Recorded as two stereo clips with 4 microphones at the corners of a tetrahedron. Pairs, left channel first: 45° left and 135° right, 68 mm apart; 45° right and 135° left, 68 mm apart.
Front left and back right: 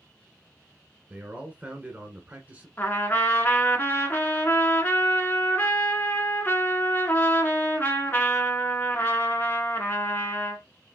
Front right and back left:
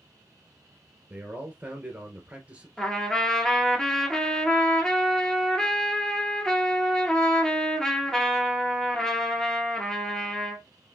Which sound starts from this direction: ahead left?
A trumpet, at 2.8 s.